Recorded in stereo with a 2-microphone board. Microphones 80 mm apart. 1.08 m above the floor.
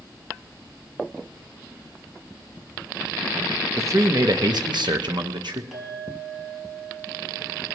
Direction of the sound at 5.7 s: Centre (ahead or behind).